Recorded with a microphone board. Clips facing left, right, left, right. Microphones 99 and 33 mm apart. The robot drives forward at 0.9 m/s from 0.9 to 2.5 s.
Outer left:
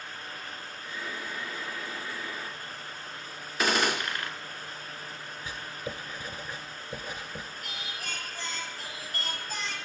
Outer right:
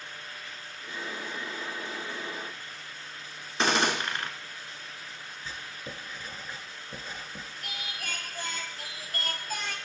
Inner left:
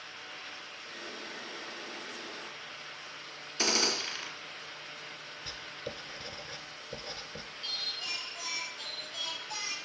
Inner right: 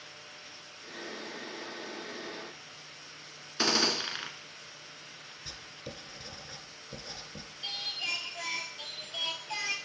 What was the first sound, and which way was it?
A gunshot, 30° right (ahead or behind).